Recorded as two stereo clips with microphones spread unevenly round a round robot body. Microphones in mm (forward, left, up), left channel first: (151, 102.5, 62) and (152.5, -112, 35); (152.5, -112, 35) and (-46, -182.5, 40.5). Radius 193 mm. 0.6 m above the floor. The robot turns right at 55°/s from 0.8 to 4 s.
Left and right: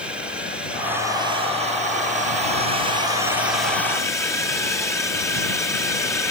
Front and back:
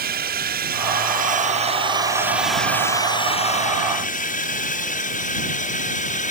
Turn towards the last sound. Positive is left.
turn(degrees=10)